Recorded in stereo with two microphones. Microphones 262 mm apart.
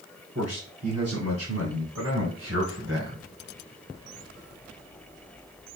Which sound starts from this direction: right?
A man speaking, at 0.3 s.